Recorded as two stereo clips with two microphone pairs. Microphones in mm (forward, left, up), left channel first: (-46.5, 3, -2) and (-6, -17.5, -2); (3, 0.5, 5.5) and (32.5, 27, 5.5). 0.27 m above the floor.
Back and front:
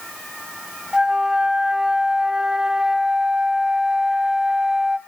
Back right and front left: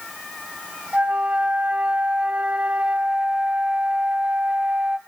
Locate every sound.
0.9 s a flute: 35° left, 1.0 m